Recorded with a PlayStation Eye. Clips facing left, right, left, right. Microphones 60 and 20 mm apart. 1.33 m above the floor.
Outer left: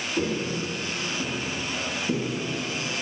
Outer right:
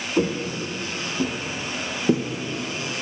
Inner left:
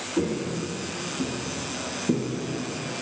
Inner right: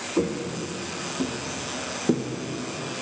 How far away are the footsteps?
About 3 m.